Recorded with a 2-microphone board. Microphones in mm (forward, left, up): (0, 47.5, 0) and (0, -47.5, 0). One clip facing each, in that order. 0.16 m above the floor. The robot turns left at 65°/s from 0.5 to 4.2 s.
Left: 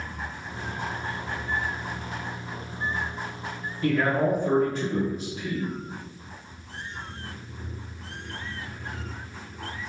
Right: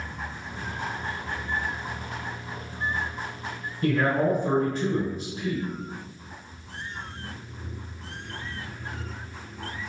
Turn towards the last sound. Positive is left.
turn(degrees=-35)  # may be behind; listen again after turning